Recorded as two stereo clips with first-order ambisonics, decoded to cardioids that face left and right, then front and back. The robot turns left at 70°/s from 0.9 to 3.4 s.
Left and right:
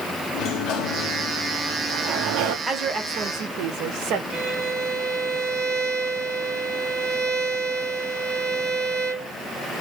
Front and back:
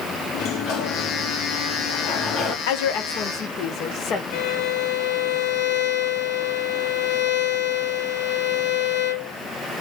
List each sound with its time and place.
0.3 s a sliding door: 50° left, 1.0 m; by 2.6 s 65° right, 1.0 m
2.7 s a woman speaking: 5° right, 1.0 m; by 4.2 s 55° right, 1.0 m
4.3 s a violin: 20° right, 0.9 m